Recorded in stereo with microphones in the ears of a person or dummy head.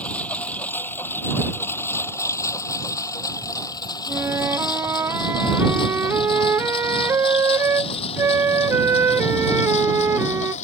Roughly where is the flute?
Centre.